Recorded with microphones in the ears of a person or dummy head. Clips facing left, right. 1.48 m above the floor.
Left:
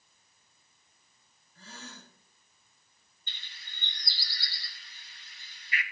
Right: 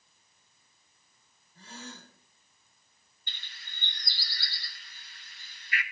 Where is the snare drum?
I don't hear a snare drum.